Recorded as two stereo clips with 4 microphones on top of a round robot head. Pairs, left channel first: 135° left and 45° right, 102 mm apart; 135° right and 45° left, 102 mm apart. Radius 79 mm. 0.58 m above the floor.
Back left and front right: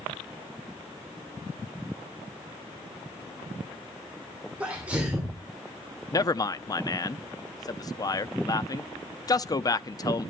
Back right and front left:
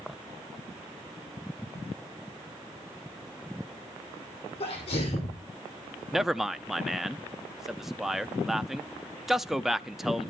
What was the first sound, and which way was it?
A sneeze, 120° right.